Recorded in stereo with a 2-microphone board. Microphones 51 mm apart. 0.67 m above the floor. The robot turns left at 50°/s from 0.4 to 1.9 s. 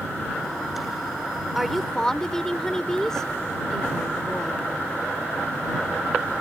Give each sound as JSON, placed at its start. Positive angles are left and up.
{"t": 1.6, "sound": "a woman speaking", "side_deg": -5}